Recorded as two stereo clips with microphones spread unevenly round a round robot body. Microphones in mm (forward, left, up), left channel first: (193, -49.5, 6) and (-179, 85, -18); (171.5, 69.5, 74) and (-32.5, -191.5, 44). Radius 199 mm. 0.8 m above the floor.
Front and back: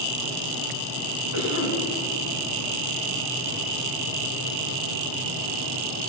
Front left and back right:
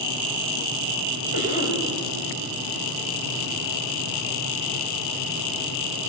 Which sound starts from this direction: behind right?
A cough, at 1.3 s.